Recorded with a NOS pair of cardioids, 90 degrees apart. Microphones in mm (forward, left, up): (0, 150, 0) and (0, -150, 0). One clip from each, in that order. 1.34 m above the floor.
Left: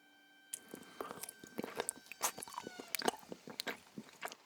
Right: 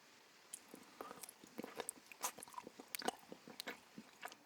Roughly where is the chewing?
Ahead left.